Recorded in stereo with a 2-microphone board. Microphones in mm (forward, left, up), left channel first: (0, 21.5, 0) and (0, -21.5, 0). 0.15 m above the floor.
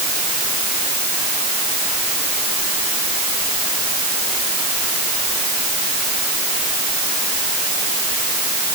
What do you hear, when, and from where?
Only background noise.